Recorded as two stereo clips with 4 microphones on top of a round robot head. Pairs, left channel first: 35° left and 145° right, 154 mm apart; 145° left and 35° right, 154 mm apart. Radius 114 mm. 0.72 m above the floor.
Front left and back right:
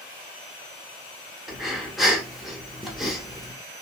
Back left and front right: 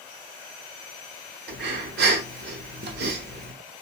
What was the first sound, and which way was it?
Breathing, 55° right.